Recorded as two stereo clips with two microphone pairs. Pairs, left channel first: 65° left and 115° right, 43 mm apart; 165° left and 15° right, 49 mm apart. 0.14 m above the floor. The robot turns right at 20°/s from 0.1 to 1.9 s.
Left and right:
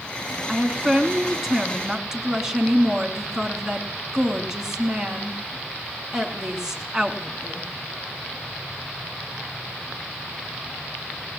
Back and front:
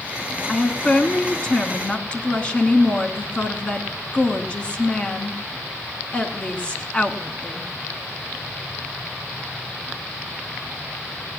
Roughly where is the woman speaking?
Behind left.